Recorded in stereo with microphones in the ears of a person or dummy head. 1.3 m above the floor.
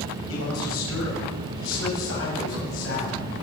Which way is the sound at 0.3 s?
75° left (ahead or behind).